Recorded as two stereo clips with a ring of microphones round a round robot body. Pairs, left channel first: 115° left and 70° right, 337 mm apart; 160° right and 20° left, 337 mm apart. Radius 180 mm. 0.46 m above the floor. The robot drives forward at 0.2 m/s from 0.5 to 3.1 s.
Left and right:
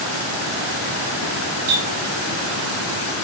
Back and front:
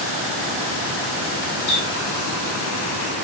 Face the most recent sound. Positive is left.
turn(degrees=-125)